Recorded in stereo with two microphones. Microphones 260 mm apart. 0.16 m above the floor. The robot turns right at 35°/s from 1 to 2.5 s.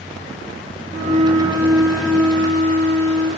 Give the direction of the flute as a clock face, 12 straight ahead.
1 o'clock.